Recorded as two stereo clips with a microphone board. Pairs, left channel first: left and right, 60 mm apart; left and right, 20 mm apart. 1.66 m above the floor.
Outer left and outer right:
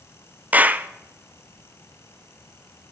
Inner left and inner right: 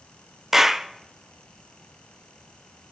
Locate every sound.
0.5 s a clap: 25° right (ahead or behind), 0.6 m